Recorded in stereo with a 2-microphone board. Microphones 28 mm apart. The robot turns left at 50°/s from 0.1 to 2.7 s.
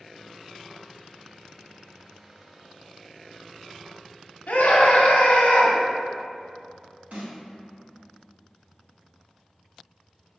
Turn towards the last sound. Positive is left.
turn(degrees=-75)  # may be behind; listen again after turning